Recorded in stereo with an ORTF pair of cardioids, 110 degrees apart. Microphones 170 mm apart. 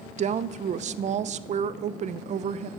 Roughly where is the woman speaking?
Ahead right.